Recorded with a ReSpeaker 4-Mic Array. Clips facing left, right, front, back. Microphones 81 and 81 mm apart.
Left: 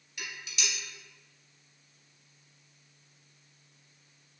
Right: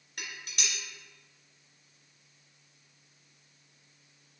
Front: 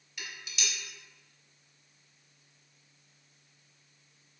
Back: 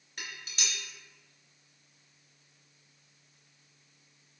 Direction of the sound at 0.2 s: 130° right.